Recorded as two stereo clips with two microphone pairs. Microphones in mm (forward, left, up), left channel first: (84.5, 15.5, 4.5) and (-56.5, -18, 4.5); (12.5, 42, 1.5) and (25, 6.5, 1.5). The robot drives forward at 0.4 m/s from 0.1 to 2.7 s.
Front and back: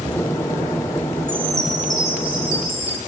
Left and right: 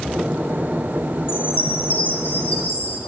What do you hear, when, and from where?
1.3 s a chime: 120° left, 0.9 m; by 3.0 s 145° left, 1.2 m